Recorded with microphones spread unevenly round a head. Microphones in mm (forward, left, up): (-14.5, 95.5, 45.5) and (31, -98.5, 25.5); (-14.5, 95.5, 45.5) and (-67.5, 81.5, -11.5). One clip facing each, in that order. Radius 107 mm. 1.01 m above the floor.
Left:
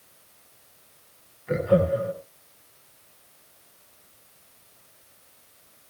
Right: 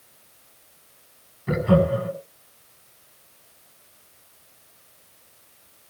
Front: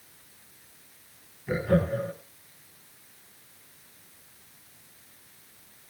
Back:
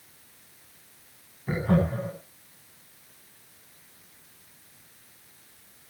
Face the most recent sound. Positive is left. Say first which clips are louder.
# right 1 dB, even
turn(degrees=-105)